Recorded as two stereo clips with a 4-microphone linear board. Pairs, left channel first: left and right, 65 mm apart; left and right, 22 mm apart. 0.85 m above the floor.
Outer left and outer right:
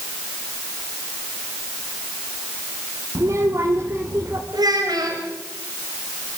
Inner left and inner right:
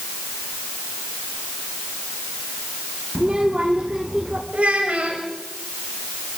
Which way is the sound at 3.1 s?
55° right (ahead or behind).